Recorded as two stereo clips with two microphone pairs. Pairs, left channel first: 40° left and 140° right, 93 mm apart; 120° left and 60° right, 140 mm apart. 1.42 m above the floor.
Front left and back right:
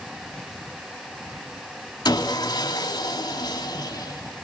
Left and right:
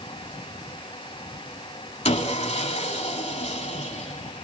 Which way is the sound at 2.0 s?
85° left.